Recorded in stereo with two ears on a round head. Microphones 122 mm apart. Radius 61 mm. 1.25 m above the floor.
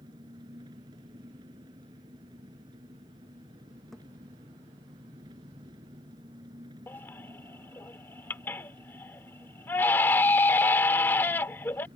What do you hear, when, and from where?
0.0 s an engine running: 30° right (ahead or behind)
3.9 s a thud: centre (ahead or behind)
6.9 s a baby crying: 15° left (ahead or behind)